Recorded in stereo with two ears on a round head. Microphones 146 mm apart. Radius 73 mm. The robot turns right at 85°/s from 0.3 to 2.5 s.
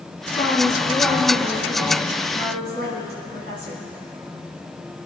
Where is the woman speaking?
105° left, 4 m; by 3.8 s 70° right, 4 m.